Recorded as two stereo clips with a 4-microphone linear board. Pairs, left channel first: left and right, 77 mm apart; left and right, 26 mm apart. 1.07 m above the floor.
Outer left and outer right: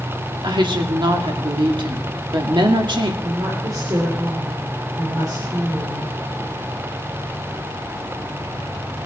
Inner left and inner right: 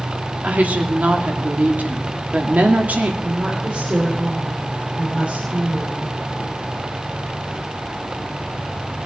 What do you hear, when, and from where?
0.4 s a woman speaking: 75° right (ahead or behind), 2 m
3.2 s a woman speaking: 50° right (ahead or behind), 3 m